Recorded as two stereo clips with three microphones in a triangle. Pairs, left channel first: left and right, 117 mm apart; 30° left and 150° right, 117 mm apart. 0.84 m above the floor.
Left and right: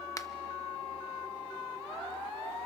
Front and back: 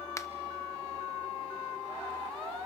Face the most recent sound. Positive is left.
turn(degrees=65)